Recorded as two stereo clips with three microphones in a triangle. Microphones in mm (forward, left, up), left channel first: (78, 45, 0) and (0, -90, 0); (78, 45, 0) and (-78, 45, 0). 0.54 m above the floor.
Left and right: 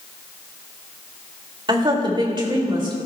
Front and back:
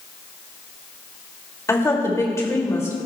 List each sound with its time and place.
1.7 s a woman speaking: 70° right, 2.5 m